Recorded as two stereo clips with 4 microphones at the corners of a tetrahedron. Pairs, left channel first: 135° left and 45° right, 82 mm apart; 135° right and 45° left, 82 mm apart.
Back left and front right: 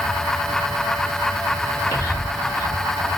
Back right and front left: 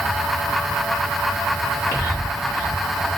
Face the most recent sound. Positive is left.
turn(degrees=-170)